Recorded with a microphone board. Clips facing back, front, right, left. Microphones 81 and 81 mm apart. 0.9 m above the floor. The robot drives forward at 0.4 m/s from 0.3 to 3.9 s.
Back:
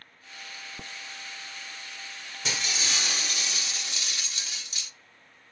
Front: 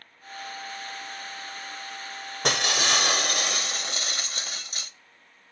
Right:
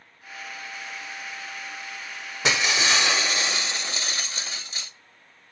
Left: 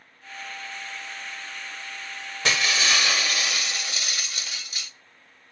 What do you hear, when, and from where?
2.4 s breaking glass: 20° right, 1.2 m; by 4.9 s 35° right, 0.7 m